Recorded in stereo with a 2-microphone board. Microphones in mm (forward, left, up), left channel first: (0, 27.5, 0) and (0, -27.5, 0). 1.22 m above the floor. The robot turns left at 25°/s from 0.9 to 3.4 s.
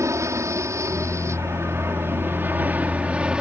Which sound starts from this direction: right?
An aircraft, at 0.0 s.